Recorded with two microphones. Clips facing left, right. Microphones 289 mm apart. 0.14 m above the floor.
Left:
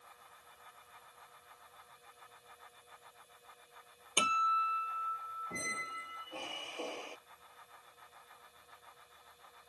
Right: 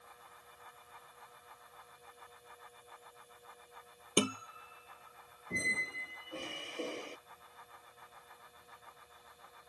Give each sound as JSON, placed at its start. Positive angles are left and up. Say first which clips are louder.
{"t": 4.2, "sound": "a guitar", "louder": "right 9 dB", "side_deg": -55}
{"t": 5.5, "sound": "a squeak", "louder": "right 4 dB", "side_deg": -20}